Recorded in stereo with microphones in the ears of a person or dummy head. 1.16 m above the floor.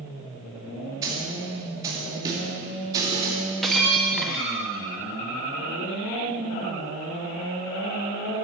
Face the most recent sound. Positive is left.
turn(degrees=-5)  # may be behind; listen again after turning